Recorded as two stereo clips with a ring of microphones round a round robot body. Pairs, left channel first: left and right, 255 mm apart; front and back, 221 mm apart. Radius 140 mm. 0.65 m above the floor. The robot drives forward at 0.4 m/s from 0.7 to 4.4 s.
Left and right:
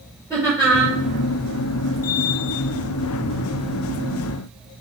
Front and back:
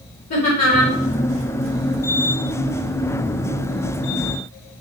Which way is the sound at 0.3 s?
10° right.